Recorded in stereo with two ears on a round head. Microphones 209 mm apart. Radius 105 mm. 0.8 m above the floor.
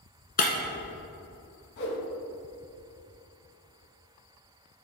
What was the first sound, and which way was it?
Breaking glass, 35° left (ahead or behind).